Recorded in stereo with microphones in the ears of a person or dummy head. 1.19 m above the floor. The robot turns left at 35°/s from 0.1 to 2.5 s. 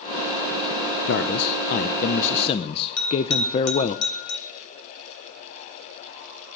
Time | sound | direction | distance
1.1 | a man speaking | 85° left | 0.6 m
3.0 | a bell | 85° left | 3.5 m